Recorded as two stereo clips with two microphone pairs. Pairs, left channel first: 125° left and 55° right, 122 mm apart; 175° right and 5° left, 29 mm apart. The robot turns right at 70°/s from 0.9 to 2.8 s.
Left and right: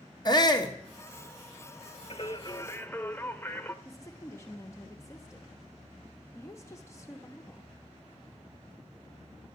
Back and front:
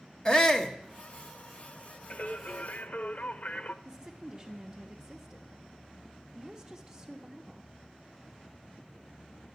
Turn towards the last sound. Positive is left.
turn(degrees=65)